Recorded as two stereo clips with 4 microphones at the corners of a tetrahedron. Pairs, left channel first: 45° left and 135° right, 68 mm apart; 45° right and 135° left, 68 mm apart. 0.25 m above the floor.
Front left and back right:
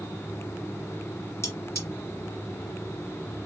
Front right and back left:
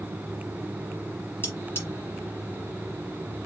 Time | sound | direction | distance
1.4 | cutlery clinking | 5° left | 1.6 m